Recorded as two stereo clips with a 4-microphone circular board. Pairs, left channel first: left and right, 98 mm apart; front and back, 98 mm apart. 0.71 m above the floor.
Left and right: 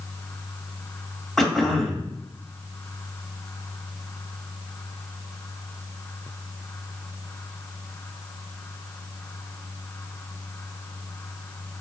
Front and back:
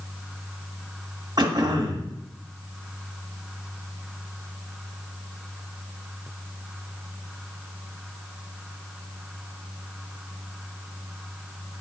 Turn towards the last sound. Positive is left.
turn(degrees=175)